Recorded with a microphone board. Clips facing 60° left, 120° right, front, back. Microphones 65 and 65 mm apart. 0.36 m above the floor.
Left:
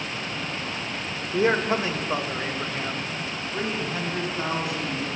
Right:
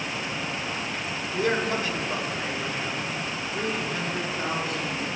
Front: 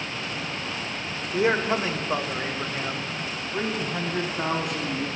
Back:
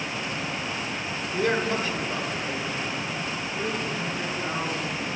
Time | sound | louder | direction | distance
1.3 | a man speaking | left 4 dB, front 2 dB | 50° left | 0.9 m